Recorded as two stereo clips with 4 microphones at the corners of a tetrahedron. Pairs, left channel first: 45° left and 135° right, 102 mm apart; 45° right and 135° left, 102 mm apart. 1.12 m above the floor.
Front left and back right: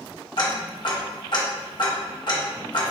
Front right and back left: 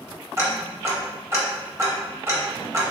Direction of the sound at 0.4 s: 75° left.